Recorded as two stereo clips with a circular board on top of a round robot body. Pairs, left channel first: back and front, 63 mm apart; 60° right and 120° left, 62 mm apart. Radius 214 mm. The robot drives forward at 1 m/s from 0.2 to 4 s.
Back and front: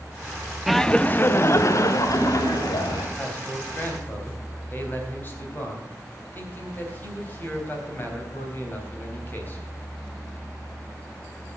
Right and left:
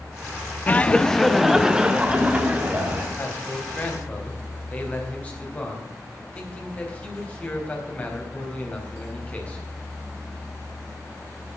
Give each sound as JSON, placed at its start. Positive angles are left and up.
{"t": 0.7, "sound": "laughter", "azimuth_deg": -85, "distance_m": 0.9}
{"t": 3.2, "sound": "a man speaking", "azimuth_deg": -115, "distance_m": 3.5}